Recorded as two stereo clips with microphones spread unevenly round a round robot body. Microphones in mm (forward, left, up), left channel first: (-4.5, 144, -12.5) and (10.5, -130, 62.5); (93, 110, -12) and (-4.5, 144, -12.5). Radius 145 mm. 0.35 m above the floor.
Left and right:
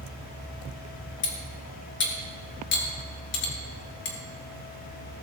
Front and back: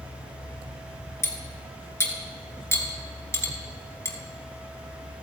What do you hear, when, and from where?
1.2 s cutlery clinking: 45° left, 3 m